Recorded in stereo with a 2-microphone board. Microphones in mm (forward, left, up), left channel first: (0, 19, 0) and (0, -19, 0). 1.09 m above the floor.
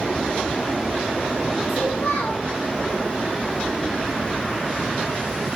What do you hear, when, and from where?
1.7 s a child speaking: 75° left (ahead or behind), 5 m